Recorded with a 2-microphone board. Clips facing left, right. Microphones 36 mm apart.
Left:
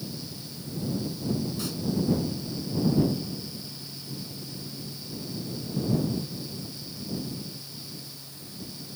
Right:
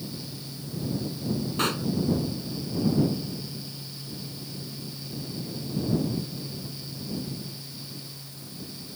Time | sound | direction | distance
1.6 | a pop | 60° right (ahead or behind) | ?